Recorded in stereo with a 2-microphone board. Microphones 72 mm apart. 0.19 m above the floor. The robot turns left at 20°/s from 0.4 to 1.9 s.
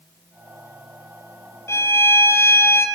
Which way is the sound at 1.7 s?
40° left (ahead or behind).